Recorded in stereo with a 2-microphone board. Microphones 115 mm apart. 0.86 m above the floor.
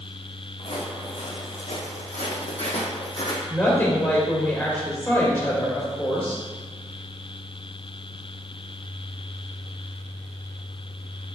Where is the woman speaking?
15° left (ahead or behind), 3 m.